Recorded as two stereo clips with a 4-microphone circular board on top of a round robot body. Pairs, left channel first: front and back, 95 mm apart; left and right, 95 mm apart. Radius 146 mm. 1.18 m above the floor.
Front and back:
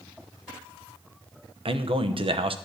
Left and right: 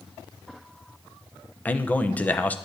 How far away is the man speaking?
About 1.0 m.